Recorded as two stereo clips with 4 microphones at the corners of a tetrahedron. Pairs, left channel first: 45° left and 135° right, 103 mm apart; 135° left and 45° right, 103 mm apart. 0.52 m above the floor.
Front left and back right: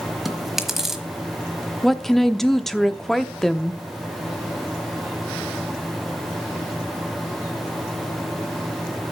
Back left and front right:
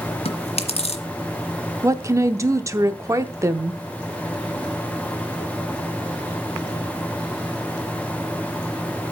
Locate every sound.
0.2 s chewing: 135° left, 1.2 m
1.8 s a woman speaking: 40° right, 0.7 m